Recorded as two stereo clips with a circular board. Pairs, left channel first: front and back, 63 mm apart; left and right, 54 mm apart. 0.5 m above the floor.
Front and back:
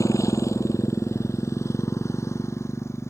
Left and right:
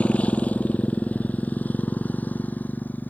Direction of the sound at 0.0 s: 25° left.